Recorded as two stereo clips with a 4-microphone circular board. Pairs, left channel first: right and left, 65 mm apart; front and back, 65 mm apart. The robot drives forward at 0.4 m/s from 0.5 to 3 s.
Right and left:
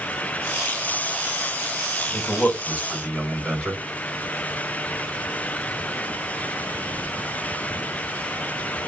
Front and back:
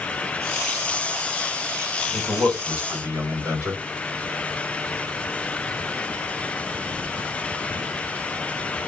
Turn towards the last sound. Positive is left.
turn(degrees=-165)